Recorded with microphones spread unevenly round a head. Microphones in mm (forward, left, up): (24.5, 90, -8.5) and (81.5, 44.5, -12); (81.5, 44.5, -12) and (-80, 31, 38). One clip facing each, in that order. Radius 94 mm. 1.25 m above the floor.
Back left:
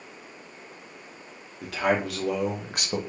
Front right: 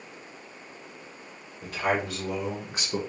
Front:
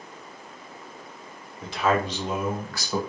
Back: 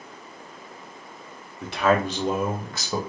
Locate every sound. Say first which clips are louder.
1.6 s a man speaking: back left 2 dB, back 3 dB; 155° left, 1.2 m; by 3.0 s 105° left, 1.1 m